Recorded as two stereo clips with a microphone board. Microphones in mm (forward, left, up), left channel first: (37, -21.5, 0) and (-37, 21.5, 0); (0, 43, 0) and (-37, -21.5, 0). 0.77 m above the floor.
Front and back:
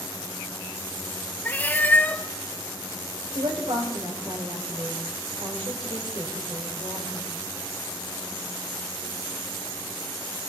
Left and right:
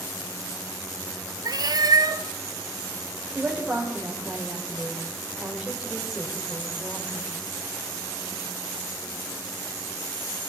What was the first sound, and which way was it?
A cat meowing, 100° right.